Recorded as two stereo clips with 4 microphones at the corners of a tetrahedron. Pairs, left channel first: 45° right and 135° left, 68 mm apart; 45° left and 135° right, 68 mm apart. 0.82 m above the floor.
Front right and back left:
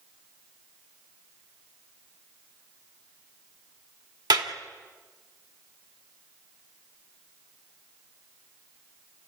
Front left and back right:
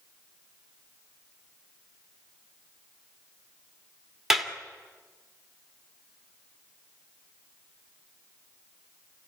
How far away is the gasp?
No gasp in this recording.